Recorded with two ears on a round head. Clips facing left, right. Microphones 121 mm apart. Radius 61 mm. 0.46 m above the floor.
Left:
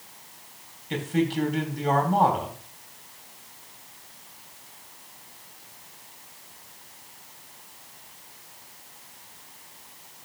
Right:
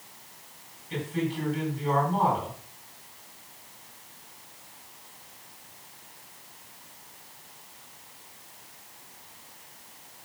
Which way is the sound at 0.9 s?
70° left (ahead or behind).